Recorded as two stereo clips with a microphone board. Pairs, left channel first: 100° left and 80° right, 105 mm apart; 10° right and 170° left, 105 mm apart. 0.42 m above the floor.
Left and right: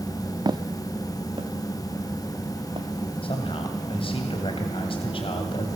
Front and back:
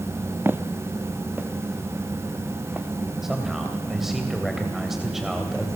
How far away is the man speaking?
About 2.5 m.